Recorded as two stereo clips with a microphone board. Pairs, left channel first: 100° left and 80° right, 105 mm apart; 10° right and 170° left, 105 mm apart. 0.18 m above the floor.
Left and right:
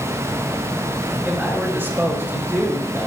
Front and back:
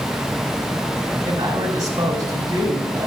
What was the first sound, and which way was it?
A man speaking, 145° right.